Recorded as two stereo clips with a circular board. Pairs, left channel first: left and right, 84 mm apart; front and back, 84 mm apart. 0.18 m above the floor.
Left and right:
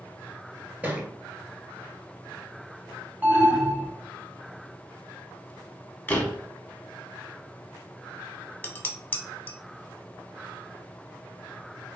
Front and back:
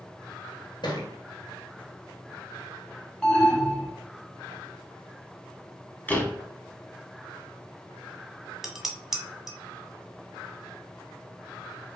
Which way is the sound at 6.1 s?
45° left.